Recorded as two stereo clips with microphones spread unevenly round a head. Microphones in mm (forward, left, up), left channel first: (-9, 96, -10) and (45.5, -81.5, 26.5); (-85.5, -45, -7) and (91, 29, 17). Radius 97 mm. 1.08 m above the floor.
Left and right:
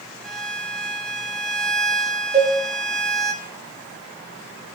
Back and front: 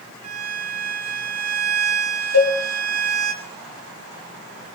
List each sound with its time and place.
0.2 s a violin: 15° left, 2.5 m
2.3 s a cowbell: 145° right, 6 m